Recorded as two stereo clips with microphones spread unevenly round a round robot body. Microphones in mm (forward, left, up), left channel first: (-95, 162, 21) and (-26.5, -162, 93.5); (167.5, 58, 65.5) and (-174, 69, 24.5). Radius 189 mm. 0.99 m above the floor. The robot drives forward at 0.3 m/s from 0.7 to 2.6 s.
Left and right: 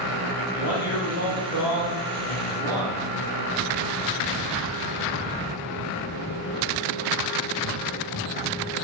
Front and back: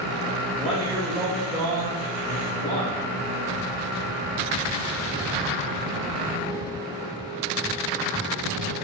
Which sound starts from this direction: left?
A man speaking, at 0.6 s.